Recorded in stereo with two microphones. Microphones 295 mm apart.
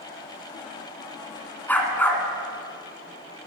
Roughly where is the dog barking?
Centre.